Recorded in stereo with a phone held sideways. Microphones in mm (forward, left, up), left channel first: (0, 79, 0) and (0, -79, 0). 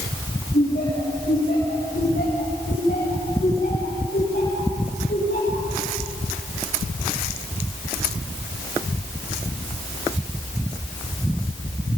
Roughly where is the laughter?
Left.